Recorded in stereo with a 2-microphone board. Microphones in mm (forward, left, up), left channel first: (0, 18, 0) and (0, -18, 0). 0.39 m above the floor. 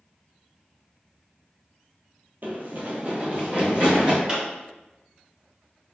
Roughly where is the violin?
I don't hear a violin.